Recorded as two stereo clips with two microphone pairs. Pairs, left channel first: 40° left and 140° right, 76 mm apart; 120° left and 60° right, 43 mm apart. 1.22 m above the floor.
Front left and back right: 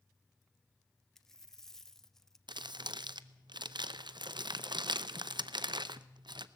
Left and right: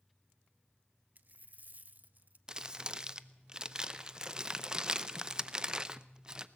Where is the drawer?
No drawer in this recording.